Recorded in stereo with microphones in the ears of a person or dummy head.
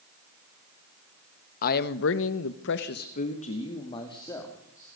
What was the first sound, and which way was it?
A man speaking, 50° left (ahead or behind).